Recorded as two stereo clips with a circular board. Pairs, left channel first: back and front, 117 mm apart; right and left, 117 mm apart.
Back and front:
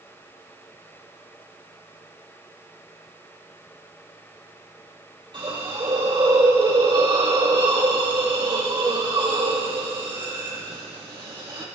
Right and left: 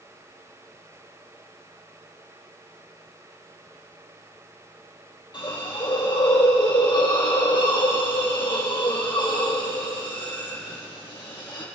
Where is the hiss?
45° right, 4 m.